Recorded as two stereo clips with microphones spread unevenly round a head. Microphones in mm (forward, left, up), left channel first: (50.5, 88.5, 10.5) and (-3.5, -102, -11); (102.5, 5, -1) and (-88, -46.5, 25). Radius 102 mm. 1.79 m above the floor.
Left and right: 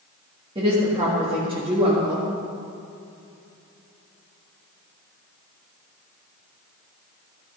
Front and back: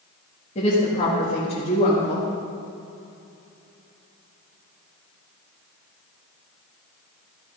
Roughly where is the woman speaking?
Ahead right.